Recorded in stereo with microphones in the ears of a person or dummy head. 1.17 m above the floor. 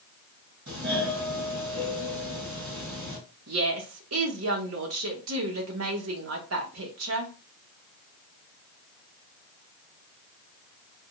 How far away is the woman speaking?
About 1.0 m.